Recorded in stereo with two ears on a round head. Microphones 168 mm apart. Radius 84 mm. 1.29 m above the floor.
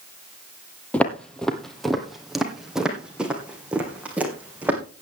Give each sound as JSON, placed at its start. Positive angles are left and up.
{"t": 0.9, "sound": "footsteps", "side_deg": 5, "distance_m": 1.5}